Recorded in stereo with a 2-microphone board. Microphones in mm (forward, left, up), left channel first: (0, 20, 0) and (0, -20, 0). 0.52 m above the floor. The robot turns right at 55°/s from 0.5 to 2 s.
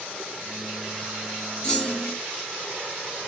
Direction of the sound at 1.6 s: 25° left (ahead or behind).